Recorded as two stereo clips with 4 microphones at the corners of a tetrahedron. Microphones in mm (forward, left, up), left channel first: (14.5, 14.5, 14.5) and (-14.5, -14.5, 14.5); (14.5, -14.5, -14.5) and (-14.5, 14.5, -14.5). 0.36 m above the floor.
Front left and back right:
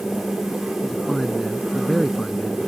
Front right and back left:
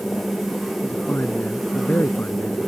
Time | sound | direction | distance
0.8 | a man speaking | 35° right | ?